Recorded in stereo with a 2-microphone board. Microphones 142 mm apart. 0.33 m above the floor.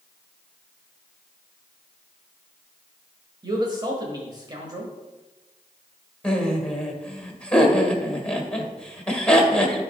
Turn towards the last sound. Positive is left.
turn(degrees=5)  # may be behind; listen again after turning